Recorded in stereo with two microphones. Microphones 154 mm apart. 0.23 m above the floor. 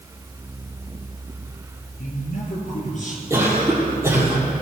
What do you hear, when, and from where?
2.0 s a man speaking: 60° left (ahead or behind), 3.5 m; by 3.2 s 50° left (ahead or behind), 4.5 m
3.3 s a cough: 15° right (ahead or behind), 6 m